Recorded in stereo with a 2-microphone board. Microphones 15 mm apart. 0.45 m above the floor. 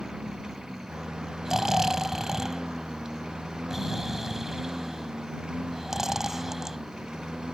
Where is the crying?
No crying in this recording.